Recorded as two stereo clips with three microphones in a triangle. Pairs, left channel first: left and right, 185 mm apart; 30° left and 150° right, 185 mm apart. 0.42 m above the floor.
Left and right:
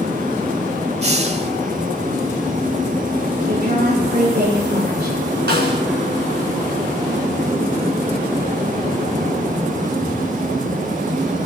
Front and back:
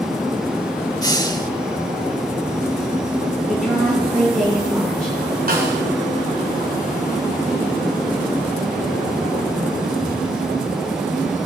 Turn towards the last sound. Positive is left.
turn(degrees=-115)